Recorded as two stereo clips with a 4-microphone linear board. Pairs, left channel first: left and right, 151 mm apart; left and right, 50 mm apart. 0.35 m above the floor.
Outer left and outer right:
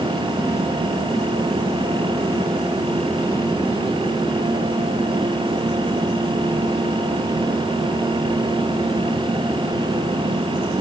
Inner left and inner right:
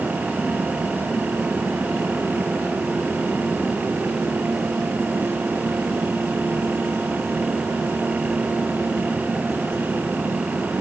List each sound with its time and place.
Only background noise.